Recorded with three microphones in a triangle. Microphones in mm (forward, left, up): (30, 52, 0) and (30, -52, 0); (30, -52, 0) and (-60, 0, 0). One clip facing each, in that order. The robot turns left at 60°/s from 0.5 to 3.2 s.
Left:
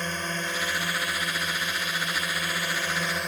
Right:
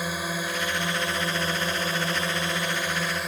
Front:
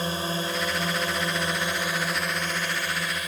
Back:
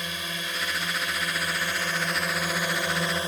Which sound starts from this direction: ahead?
A drone, at 0.0 s.